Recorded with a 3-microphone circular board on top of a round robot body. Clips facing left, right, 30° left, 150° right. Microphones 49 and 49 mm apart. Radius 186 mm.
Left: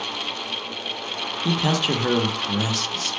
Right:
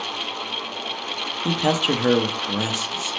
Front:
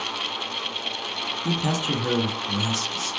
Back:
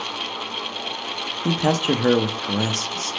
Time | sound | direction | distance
1.4 | a man speaking | 160° right | 0.7 m